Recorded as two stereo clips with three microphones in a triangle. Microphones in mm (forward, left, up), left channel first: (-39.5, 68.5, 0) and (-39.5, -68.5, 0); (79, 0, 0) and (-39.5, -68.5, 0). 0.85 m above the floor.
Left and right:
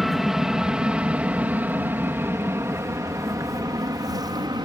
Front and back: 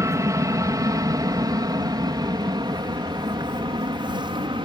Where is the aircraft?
175° right; by 4.7 s 125° right.